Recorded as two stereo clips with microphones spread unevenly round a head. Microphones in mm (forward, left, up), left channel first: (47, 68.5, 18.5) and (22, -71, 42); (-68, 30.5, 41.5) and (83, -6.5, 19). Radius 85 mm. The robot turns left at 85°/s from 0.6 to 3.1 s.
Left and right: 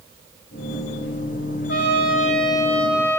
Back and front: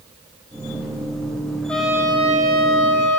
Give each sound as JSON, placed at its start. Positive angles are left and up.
{"t": 1.7, "sound": "a trumpet", "azimuth_deg": 85, "distance_m": 5.5}